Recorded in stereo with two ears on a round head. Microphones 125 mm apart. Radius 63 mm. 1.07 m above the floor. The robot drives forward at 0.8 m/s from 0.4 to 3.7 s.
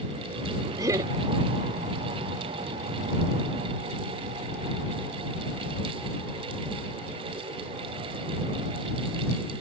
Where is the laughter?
25° right (ahead or behind).